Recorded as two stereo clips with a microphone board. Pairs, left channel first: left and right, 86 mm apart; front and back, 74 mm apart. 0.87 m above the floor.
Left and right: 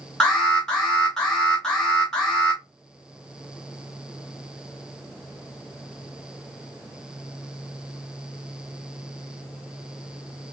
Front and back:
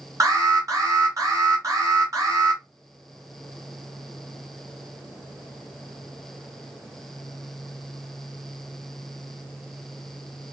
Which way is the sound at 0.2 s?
170° left.